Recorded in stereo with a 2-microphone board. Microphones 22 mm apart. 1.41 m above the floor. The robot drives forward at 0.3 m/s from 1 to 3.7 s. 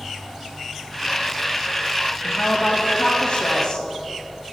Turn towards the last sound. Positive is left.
turn(degrees=70)  # may be behind; listen again after turning